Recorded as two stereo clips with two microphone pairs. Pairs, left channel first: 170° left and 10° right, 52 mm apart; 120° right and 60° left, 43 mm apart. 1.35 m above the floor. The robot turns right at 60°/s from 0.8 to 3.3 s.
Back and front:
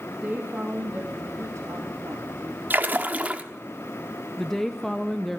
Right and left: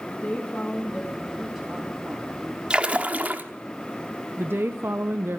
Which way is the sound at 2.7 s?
Straight ahead.